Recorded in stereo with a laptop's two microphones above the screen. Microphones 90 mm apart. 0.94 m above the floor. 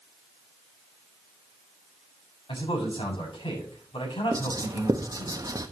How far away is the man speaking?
About 7.5 m.